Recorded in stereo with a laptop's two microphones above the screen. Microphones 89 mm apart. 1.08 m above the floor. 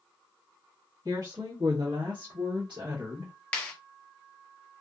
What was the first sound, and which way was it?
A woman speaking, 45° right (ahead or behind).